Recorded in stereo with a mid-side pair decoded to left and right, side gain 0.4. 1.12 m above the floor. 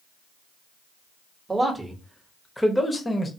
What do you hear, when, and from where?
1.5 s a man speaking: 25° right, 1.1 m; by 3.3 s 30° left, 1.0 m